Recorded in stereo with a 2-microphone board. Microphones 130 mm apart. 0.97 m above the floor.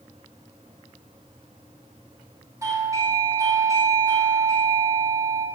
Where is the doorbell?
25° right (ahead or behind), 0.7 m.